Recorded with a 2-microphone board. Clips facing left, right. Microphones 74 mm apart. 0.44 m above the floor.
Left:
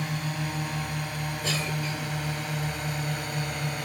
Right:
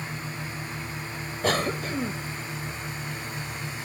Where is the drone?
65° left (ahead or behind); by 3.9 s 55° left (ahead or behind).